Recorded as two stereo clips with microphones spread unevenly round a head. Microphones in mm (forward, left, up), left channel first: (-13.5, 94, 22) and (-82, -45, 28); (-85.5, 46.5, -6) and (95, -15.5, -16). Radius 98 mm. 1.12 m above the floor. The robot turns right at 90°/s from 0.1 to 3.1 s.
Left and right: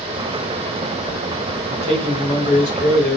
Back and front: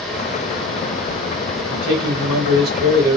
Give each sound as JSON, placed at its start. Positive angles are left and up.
{"t": 1.7, "sound": "a man speaking", "azimuth_deg": -70, "distance_m": 1.2}